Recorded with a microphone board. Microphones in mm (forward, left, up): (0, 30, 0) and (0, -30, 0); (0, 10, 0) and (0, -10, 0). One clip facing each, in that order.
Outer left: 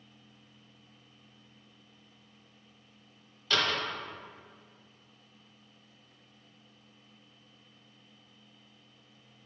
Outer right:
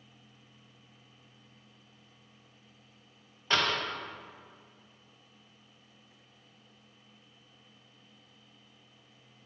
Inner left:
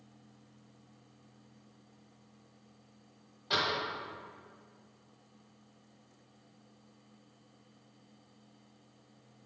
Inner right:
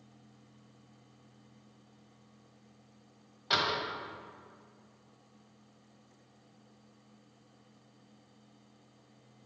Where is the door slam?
30° right (ahead or behind), 1.1 m.